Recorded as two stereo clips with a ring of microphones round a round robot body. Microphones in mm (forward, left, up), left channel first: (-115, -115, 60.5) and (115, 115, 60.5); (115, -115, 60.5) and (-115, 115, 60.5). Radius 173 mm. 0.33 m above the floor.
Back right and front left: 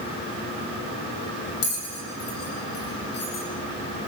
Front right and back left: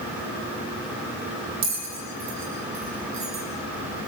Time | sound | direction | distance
1.6 | a bell | 175° left | 5 m